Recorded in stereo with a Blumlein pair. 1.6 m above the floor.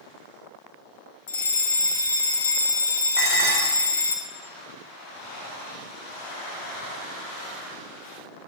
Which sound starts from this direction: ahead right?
Dishes clattering, at 3.2 s.